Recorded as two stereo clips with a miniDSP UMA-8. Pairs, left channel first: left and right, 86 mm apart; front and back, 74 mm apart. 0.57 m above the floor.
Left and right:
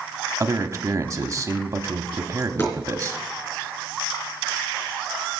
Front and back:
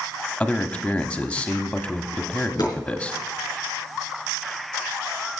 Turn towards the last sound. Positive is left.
turn(degrees=35)